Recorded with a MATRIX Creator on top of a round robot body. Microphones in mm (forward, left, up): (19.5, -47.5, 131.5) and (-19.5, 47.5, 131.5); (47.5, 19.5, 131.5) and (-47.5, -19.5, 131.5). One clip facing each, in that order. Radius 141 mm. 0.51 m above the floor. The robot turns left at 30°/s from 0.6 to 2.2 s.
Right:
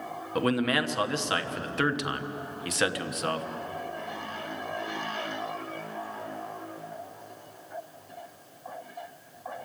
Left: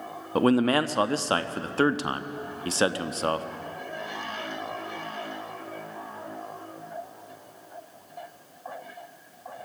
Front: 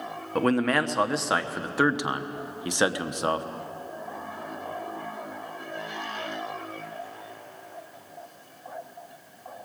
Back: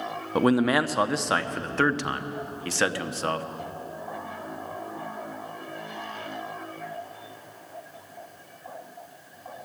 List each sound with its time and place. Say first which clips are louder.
0.3 s a man speaking: left 5 dB, back 2 dB; 130° left, 1.2 m; by 3.5 s 85° left, 1.2 m